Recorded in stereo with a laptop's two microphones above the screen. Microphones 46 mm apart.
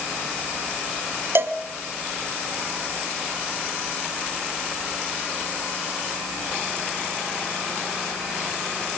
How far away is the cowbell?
About 1.5 m.